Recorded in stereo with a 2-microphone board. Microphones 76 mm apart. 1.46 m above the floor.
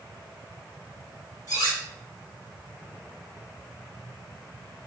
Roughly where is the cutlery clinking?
Left.